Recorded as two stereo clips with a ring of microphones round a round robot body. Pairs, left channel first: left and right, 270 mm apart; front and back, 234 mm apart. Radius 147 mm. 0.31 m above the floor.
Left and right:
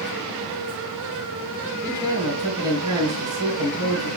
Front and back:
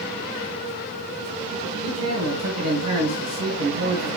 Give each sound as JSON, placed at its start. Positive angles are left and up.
{"t": 1.8, "sound": "a man speaking", "azimuth_deg": -165, "distance_m": 3.0}